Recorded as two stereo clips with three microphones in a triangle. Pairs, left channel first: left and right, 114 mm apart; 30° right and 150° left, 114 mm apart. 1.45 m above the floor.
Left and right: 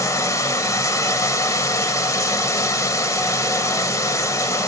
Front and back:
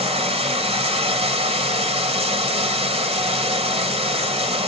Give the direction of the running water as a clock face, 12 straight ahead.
7 o'clock.